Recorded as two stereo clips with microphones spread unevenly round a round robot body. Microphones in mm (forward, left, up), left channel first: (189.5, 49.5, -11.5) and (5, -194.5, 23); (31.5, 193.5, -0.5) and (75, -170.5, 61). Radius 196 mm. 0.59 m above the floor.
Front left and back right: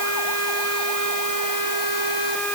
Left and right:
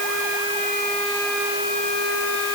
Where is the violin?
I don't hear a violin.